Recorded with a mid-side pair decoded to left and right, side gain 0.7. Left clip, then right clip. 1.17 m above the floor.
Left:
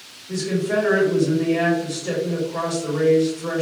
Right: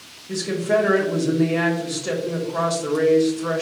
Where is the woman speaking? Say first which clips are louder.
Right 2 dB; 20° right, 1.3 m.